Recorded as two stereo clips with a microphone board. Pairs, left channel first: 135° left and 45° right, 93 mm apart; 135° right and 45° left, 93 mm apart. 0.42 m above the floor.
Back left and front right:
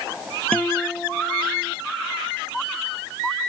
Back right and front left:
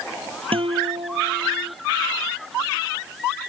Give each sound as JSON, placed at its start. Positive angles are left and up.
{"t": 0.5, "sound": "a guitar", "azimuth_deg": 60}